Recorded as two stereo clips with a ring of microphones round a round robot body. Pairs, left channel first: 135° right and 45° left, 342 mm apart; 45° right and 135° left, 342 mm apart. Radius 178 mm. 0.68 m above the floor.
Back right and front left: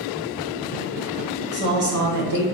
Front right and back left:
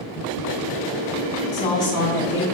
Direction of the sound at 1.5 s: Straight ahead.